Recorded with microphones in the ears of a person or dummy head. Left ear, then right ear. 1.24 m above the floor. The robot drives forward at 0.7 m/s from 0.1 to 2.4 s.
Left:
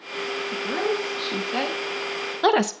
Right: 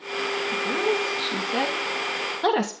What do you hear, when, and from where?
0.5 s a woman speaking: 5° left (ahead or behind), 1.4 m; by 2.7 s 20° left (ahead or behind), 0.5 m